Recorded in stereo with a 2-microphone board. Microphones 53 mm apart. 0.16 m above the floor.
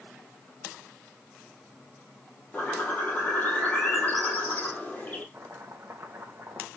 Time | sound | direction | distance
2.5 | a bird | 25° left (ahead or behind) | 5 m
5.3 | chopping | 45° right (ahead or behind) | 3.5 m